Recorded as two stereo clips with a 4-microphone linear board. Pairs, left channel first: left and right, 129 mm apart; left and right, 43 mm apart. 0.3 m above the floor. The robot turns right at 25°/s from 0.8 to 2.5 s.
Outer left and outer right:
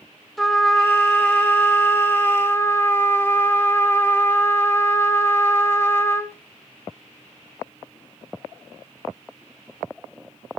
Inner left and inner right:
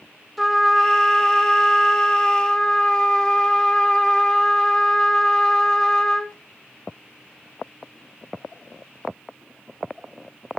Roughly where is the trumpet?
Centre.